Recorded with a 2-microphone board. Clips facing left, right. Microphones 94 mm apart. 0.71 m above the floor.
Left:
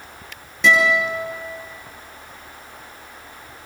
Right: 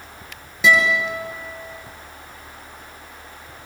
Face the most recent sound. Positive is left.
turn(degrees=-5)  # may be behind; listen again after turning